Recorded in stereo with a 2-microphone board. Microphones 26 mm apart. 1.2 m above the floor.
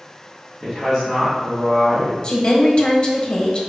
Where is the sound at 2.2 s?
30° left (ahead or behind), 1.1 m.